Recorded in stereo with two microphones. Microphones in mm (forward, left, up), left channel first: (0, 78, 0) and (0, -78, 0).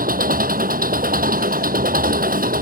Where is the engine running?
65° right (ahead or behind).